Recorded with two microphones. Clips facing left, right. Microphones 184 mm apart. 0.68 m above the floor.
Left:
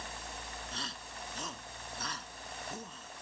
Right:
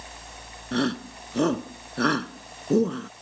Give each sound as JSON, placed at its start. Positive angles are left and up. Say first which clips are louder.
{"t": 0.7, "sound": "a shout", "louder": "right 20 dB", "side_deg": -75}